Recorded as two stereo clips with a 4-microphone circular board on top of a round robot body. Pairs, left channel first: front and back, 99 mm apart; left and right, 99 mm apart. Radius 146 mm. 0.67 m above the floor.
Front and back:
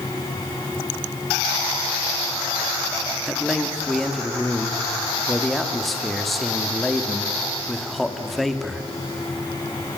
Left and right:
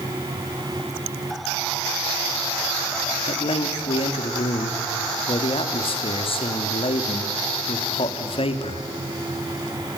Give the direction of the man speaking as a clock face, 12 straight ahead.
9 o'clock.